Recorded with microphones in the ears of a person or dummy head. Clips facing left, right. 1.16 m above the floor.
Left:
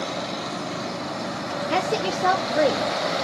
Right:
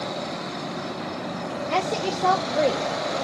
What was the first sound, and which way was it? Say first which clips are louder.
A woman speaking: left 1 dB; 10° left (ahead or behind).